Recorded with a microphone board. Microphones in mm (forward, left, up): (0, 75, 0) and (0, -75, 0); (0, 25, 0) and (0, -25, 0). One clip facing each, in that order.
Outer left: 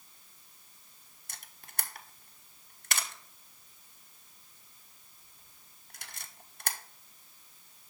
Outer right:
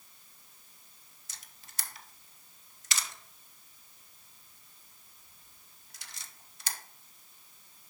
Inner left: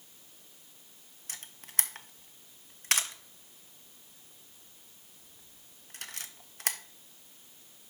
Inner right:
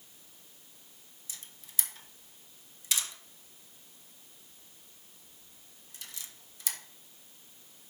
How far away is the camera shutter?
About 0.7 m.